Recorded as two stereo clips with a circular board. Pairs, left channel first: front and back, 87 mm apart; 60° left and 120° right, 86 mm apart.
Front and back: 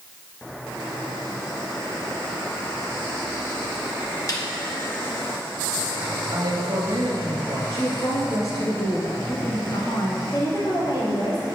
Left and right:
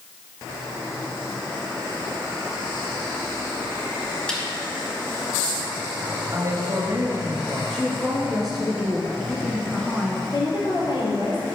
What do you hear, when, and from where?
4.3 s a snare drum: 20° right, 2.5 m
6.3 s a man speaking: 160° right, 1.9 m
7.7 s a woman speaking: 25° right, 1.4 m
10.3 s a woman speaking: 35° left, 3.5 m